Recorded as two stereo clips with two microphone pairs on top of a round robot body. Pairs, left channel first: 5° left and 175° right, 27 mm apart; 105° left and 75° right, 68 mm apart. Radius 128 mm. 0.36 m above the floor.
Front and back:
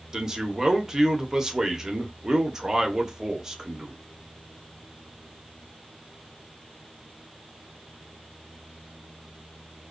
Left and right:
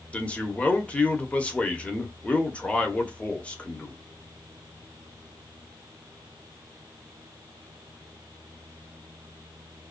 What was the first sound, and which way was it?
A man speaking, 160° left.